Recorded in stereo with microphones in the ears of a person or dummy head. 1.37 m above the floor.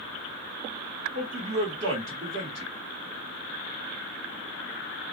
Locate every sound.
1.1 s a man speaking: 35° right (ahead or behind), 1.0 m